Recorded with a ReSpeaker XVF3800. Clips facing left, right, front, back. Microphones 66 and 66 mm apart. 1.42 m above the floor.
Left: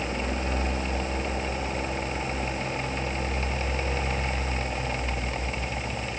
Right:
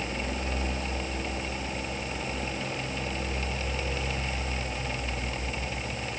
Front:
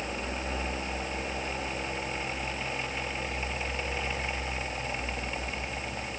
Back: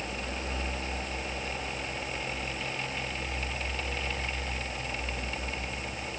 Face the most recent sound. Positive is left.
No sound to turn to.